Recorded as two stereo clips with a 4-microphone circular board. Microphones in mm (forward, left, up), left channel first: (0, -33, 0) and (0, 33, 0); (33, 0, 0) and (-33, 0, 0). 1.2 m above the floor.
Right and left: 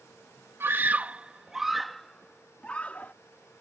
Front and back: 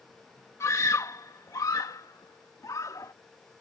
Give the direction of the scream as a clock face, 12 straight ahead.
11 o'clock.